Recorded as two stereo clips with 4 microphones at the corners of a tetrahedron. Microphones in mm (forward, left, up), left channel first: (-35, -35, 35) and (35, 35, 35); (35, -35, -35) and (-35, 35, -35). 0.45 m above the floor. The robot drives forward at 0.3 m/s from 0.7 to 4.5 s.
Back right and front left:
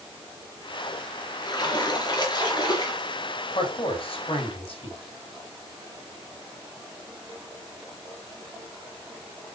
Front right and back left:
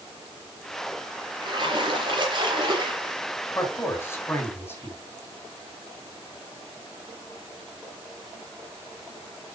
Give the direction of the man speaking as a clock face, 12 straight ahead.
4 o'clock.